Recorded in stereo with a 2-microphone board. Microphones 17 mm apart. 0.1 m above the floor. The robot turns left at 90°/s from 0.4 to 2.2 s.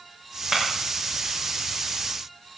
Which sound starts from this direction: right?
A clap, at 0.5 s.